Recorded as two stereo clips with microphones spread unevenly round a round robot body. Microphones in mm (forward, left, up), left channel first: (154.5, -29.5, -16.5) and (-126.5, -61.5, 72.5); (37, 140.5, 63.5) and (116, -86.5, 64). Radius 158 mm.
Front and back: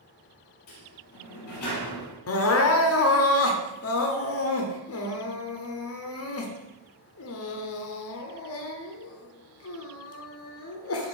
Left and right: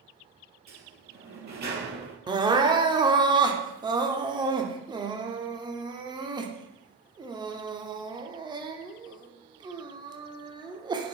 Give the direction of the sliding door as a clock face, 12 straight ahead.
1 o'clock.